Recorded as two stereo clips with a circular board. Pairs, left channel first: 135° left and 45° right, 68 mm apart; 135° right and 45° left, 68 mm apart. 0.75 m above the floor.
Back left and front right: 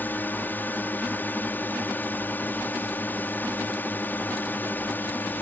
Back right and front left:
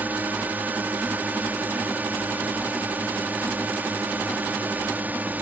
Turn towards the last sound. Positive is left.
turn(degrees=90)